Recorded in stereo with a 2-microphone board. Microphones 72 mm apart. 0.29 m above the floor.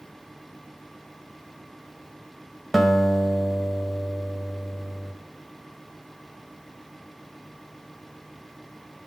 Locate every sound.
2.7 s a guitar: centre (ahead or behind), 0.9 m